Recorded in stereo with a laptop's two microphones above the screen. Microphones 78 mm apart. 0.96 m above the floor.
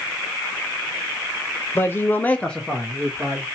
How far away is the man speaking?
About 0.8 m.